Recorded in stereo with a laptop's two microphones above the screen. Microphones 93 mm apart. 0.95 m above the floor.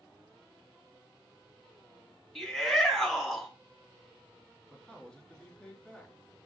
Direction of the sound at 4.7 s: 5° left (ahead or behind).